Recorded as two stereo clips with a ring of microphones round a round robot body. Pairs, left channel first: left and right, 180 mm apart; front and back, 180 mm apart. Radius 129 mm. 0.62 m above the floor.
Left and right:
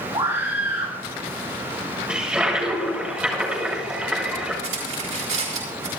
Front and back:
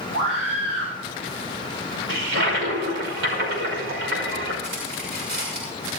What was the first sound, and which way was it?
A scream, 160° right.